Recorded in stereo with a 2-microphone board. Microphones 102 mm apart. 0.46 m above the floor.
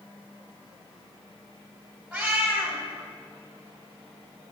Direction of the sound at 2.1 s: 10° right (ahead or behind).